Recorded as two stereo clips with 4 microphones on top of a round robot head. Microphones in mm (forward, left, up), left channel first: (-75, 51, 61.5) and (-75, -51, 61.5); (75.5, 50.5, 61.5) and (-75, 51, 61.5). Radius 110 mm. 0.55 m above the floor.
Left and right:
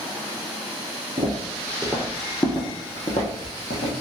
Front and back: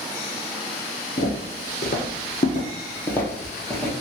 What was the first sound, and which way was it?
Footsteps, 40° right.